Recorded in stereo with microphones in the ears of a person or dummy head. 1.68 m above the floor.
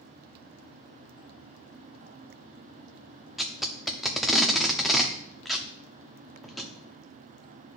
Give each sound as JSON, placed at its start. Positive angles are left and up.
{"t": 3.4, "sound": "tape being pulled", "side_deg": 0, "distance_m": 0.6}